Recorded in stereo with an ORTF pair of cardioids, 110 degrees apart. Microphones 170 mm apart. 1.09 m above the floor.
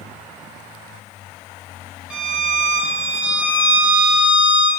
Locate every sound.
2.1 s a violin: 5° right, 0.6 m